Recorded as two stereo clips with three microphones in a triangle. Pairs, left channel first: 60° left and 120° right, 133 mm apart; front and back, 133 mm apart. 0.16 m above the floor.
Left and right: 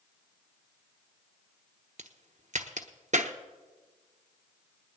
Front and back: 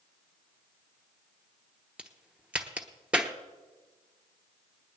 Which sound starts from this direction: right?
A crack, at 2.0 s.